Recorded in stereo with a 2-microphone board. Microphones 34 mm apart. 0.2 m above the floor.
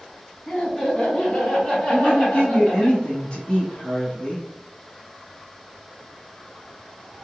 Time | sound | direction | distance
0.5 | laughter | 30° left (ahead or behind) | 2 m
1.9 | a woman speaking | 35° left (ahead or behind) | 1.6 m